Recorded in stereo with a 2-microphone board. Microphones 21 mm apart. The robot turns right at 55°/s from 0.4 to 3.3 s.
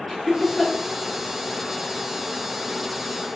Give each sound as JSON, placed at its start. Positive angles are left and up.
{"t": 0.1, "sound": "laughter", "side_deg": 15, "distance_m": 1.1}